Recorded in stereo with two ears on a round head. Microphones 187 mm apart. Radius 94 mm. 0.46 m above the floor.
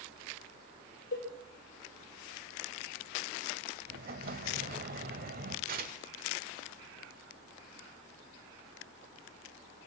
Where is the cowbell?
45° left (ahead or behind), 6 m.